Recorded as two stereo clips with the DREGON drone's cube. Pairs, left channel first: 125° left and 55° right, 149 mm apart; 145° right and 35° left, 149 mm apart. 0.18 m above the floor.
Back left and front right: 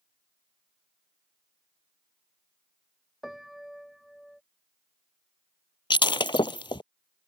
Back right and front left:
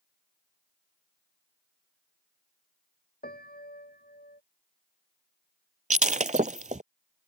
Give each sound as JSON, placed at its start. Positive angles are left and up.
{"t": 3.2, "sound": "a piano", "azimuth_deg": -145}
{"t": 5.9, "sound": "breaking glass", "azimuth_deg": 65}